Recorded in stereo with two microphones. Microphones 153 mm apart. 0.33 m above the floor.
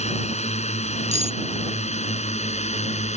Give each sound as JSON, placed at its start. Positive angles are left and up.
{"t": 0.0, "sound": "a drone", "side_deg": 45}
{"t": 1.1, "sound": "cutlery clinking", "side_deg": -50}